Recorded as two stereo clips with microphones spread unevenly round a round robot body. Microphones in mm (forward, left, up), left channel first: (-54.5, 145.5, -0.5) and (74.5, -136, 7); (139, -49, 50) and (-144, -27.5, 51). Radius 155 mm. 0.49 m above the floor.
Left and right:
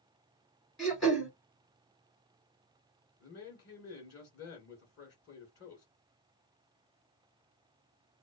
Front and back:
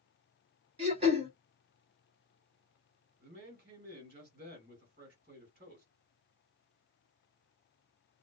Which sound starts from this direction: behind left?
A man speaking, at 3.2 s.